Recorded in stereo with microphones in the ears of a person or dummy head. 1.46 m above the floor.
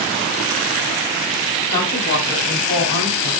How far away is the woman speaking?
About 4.5 m.